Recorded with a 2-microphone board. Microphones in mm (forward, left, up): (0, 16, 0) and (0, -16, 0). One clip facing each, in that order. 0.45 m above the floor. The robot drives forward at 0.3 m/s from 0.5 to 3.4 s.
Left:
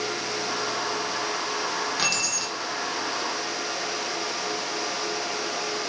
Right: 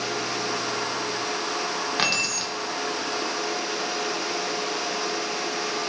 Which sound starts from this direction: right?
Keys jangling, at 2.0 s.